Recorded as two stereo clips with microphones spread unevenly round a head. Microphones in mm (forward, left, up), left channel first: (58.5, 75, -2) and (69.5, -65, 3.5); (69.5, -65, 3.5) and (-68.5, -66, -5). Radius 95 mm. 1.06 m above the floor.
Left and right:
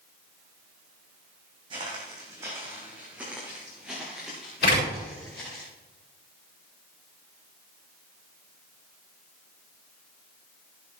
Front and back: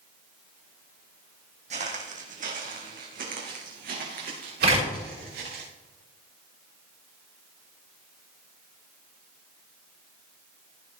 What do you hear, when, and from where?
1.7 s footsteps: 145° right, 2.5 m; by 5.6 s straight behind, 6 m
4.6 s a door slam: 140° left, 7 m